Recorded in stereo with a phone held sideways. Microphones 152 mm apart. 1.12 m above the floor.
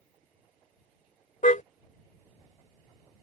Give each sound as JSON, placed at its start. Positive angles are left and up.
{"t": 1.4, "sound": "a car horn", "side_deg": 70}